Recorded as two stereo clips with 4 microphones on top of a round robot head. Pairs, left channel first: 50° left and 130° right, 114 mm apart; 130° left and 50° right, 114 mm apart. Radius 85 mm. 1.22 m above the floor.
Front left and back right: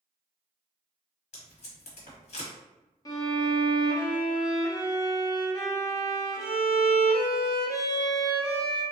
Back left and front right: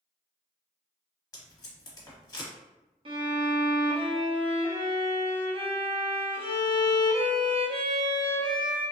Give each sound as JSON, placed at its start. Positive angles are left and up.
{"t": 1.3, "sound": "tape being pulled", "azimuth_deg": 70, "distance_m": 1.2}
{"t": 3.0, "sound": "a violin", "azimuth_deg": -10, "distance_m": 0.9}